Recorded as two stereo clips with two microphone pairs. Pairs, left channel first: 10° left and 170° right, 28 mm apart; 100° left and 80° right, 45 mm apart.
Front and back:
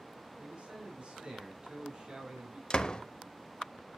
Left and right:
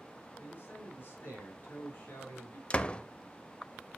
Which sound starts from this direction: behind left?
A man speaking, at 0.4 s.